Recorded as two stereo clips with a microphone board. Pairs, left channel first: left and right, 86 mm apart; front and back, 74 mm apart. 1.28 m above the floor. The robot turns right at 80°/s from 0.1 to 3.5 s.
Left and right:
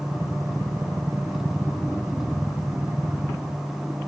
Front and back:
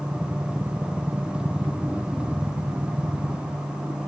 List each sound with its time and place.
Only background noise.